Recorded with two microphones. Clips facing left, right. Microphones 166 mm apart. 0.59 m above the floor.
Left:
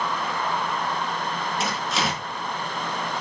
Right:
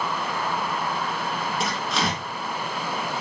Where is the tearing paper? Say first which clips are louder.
Even; centre (ahead or behind), 1.1 m.